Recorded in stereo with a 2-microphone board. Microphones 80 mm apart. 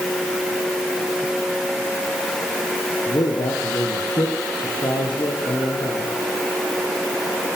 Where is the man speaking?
65° left (ahead or behind), 5.5 m.